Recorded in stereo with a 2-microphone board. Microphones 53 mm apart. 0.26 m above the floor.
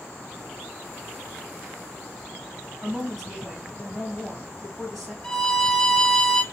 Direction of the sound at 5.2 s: 15° left (ahead or behind).